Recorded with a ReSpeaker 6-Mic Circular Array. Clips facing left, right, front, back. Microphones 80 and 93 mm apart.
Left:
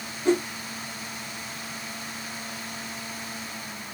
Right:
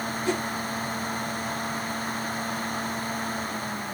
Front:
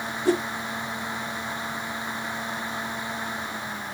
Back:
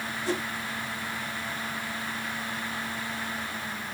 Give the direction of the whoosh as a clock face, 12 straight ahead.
11 o'clock.